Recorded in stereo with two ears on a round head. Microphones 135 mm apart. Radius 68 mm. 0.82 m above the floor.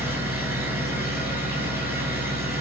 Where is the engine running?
15° right (ahead or behind), 6 m.